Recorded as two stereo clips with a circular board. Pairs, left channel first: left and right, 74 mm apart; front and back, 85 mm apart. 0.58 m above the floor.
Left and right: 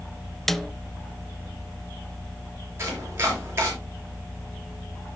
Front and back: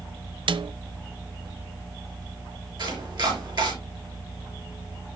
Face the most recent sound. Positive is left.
turn(degrees=-150)